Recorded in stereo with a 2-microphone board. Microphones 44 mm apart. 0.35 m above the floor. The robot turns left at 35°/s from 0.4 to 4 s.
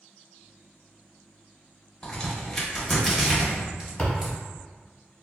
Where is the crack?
15° left (ahead or behind), 1.3 m; by 4.3 s 25° right (ahead or behind), 1.3 m.